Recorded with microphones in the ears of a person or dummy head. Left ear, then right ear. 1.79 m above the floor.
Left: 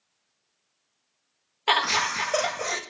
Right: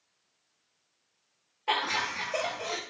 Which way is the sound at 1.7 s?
65° left (ahead or behind).